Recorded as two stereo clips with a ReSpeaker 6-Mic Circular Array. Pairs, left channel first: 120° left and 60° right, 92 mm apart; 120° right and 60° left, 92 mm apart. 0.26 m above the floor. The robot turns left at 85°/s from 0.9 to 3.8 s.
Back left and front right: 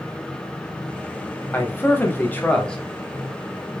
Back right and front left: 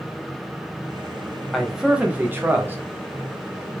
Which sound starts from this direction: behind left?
A man speaking, at 1.5 s.